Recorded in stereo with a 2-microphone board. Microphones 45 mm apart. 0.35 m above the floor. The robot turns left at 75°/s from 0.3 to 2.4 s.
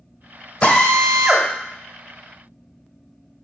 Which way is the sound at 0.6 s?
35° left.